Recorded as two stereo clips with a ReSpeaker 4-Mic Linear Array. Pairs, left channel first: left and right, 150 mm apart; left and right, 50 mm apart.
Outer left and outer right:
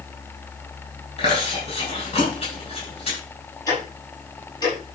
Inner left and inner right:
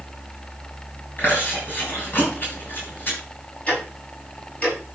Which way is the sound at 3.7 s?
30° left (ahead or behind).